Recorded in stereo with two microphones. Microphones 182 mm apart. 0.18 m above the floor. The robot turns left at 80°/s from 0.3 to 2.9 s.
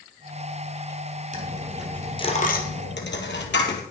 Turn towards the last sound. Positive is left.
turn(degrees=80)